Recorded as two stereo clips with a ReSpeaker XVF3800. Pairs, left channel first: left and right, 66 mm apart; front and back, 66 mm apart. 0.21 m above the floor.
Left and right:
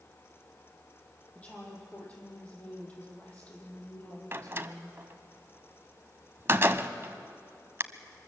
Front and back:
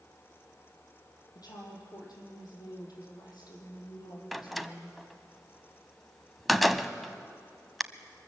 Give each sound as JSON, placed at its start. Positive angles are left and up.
{"t": 1.4, "sound": "a woman speaking", "azimuth_deg": 20, "distance_m": 6.0}
{"t": 4.3, "sound": "a door slam", "azimuth_deg": -90, "distance_m": 0.7}